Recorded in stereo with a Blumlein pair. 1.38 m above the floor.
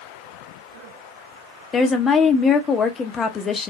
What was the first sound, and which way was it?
A woman speaking, 20° left.